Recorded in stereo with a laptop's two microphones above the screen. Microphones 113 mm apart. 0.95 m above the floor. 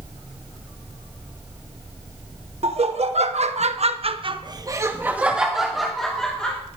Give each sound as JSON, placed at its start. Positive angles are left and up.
{"t": 2.6, "sound": "laughter", "side_deg": -65, "distance_m": 1.4}